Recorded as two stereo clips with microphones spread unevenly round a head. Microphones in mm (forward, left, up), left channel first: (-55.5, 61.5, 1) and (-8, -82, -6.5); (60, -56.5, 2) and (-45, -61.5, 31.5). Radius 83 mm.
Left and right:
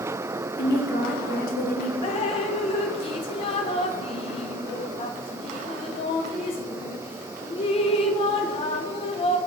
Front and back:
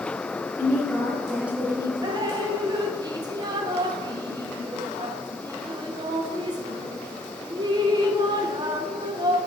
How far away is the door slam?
No door slam in this recording.